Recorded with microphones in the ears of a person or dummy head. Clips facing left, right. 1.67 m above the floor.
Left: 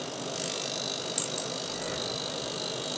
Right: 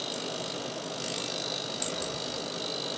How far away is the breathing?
About 1.5 m.